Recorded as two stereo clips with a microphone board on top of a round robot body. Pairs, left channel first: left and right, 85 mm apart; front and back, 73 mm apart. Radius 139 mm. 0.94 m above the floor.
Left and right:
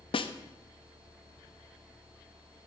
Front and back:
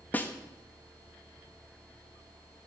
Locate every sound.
0.1 s a snare drum: 70° left, 0.8 m